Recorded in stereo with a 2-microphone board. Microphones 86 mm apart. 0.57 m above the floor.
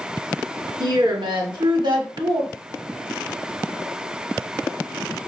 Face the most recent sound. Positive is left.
turn(degrees=-60)  # may be behind; listen again after turning